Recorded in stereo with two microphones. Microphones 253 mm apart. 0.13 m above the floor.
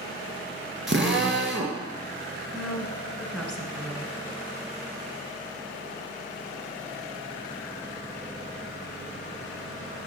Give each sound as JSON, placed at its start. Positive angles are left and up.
{"t": 0.9, "sound": "a drill", "side_deg": -50, "distance_m": 1.7}
{"t": 2.5, "sound": "a woman speaking", "side_deg": 0, "distance_m": 1.7}